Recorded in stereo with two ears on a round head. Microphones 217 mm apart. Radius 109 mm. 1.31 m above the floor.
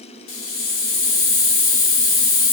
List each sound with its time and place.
0.3 s a hiss: 55° left (ahead or behind), 0.9 m